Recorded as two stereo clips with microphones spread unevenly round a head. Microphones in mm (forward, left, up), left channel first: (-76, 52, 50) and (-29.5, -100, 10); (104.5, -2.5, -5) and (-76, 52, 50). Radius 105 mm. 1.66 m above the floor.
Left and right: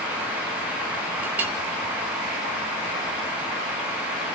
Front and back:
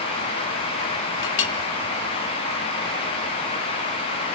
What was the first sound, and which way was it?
A clink, 15° left.